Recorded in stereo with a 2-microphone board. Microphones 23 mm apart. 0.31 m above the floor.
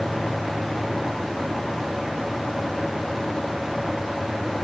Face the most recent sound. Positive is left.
No sound to turn to.